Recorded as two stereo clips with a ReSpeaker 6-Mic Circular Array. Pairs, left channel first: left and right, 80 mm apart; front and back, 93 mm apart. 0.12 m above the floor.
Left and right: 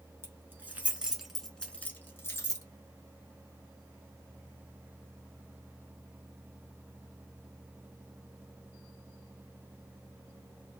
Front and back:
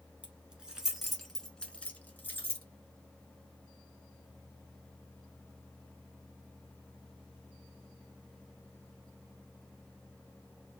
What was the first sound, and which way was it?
Keys jangling, 115° right.